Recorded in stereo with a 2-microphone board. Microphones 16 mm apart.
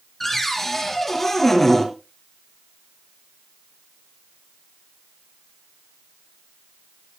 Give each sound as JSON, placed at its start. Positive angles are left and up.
{"t": 0.2, "sound": "a cupboard door", "side_deg": 15, "distance_m": 4.0}